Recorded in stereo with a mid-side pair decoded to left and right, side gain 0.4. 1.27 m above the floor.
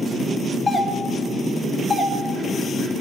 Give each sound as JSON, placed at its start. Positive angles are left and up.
{"t": 0.7, "sound": "a doorbell", "azimuth_deg": 30, "distance_m": 1.0}